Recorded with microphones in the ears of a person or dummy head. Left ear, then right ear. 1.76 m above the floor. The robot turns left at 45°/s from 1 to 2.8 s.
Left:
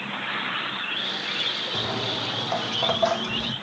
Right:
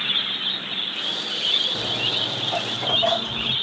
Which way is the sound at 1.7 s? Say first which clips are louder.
Right 4 dB; 45° left (ahead or behind).